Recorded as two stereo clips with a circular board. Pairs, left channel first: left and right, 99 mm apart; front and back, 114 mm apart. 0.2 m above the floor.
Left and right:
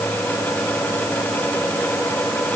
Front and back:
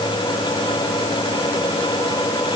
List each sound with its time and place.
Only background noise.